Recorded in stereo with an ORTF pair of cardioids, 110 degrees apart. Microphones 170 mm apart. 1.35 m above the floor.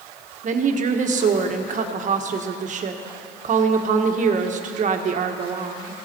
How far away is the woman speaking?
About 1.5 m.